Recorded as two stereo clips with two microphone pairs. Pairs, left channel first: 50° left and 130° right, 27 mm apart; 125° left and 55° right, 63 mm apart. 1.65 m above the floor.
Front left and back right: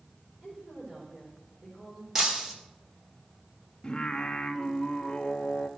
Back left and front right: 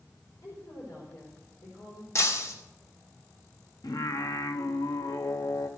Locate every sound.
0.4 s a woman speaking: 165° left, 4 m
2.1 s breaking glass: 160° left, 2 m
3.8 s singing: 110° left, 0.9 m